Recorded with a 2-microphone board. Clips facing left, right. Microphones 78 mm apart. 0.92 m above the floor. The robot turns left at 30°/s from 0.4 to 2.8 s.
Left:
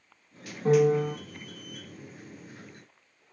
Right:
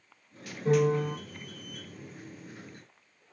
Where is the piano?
60° left (ahead or behind), 1.4 m; by 1.1 s 50° left (ahead or behind), 1.4 m.